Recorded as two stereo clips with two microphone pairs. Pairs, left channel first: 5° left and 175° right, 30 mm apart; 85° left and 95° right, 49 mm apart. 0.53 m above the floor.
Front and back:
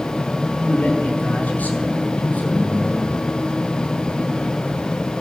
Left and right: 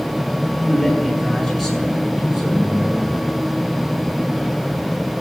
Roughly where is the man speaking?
Ahead.